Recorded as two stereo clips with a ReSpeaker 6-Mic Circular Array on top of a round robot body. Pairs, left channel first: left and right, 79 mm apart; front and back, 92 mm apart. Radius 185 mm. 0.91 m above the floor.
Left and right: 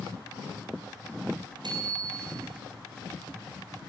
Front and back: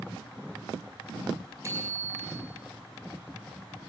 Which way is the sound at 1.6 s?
120° right.